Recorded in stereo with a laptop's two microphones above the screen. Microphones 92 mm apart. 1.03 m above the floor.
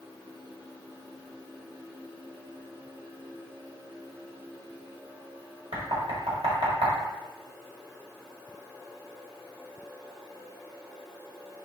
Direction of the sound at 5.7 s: 75° right (ahead or behind).